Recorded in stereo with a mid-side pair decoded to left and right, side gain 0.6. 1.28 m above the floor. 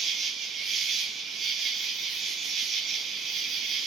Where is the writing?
No writing in this recording.